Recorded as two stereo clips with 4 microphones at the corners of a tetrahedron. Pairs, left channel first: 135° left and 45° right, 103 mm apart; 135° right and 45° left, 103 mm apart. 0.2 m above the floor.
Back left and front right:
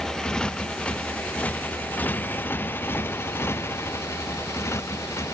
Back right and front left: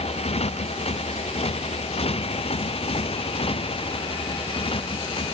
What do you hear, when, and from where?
0.0 s a motorcycle: 140° right; by 5.3 s 160° right